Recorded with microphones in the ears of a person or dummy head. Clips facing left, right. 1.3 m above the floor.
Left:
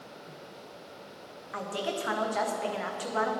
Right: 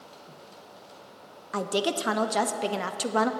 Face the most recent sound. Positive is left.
turn(degrees=-45)  # may be behind; listen again after turning